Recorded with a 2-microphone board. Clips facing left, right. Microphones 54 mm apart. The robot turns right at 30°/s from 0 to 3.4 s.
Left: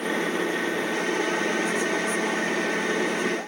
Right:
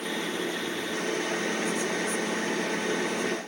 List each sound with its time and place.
Only background noise.